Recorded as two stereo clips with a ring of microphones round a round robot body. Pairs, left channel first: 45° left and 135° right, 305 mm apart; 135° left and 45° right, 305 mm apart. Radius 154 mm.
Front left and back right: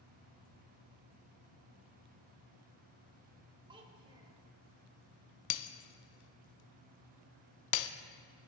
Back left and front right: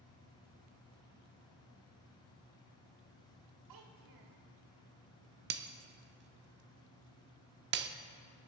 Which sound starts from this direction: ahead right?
A child speaking, at 3.7 s.